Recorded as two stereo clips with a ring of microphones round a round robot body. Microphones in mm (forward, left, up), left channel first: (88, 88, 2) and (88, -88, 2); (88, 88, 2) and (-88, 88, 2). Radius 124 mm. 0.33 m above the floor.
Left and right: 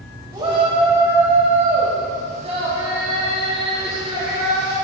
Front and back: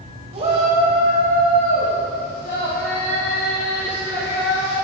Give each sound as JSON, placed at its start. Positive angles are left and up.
{"t": 0.3, "sound": "a shout", "azimuth_deg": -150, "distance_m": 1.5}